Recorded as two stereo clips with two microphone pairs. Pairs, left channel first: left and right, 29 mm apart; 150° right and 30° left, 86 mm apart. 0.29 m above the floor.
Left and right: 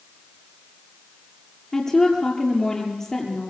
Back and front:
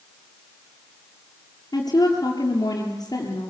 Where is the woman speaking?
170° left, 6.5 m.